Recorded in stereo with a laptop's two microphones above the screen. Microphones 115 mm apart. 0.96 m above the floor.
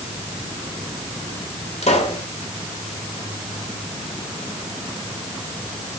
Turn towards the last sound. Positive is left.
turn(degrees=75)  # may be behind; listen again after turning